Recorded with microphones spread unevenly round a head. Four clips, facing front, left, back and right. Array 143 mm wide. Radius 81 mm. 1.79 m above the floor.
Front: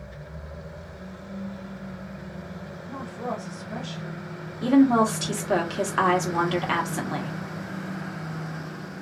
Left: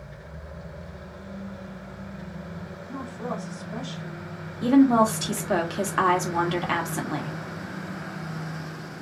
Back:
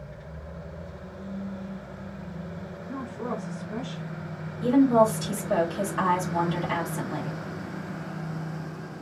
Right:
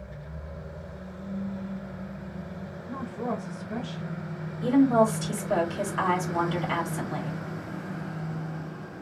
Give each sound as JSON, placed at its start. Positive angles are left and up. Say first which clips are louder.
{"t": 2.9, "sound": "a woman speaking", "louder": "right 1 dB, front 1 dB", "azimuth_deg": -75, "distance_m": 1.2}
{"t": 4.6, "sound": "a woman speaking", "louder": "left 3 dB, front 1 dB", "azimuth_deg": 50, "distance_m": 1.6}